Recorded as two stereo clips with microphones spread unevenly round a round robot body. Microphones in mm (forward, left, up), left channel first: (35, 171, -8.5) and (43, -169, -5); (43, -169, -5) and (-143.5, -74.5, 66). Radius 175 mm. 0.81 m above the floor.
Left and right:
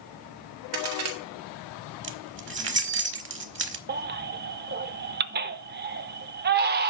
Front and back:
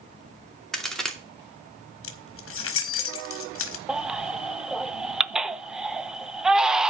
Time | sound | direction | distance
0.7 | a crack | 110° right | 2.5 m
2.0 | keys jangling | 30° right | 1.3 m
3.9 | a baby crying | 140° right | 0.5 m